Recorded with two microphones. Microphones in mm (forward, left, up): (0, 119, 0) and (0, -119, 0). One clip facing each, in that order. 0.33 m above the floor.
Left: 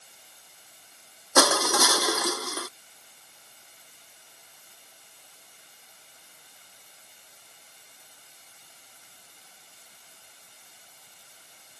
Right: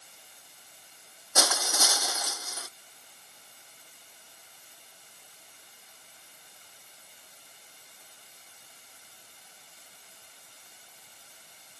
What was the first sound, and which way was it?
Crushing, 75° left (ahead or behind).